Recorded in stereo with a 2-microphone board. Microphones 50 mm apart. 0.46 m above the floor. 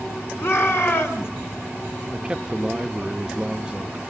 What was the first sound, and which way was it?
A shout, 50° left (ahead or behind).